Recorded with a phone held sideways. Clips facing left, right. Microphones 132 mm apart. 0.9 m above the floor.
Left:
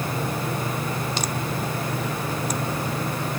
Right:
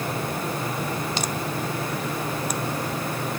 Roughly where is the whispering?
No whispering in this recording.